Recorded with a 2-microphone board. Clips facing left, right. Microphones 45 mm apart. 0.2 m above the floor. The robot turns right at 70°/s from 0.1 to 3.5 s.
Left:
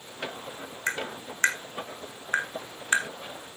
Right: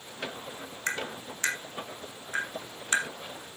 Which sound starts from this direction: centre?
Tapping, at 0.9 s.